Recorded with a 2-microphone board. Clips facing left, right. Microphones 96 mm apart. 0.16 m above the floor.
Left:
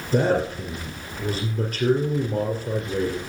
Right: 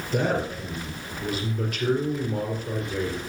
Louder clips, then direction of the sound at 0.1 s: Left 4 dB; 40° left (ahead or behind).